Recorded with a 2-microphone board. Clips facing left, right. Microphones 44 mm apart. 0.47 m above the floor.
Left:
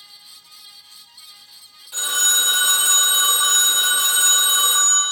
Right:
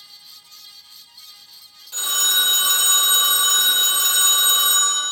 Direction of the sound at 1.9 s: 10° left (ahead or behind).